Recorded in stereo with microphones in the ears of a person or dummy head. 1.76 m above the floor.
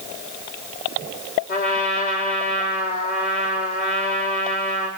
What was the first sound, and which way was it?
A trumpet, 45° left (ahead or behind).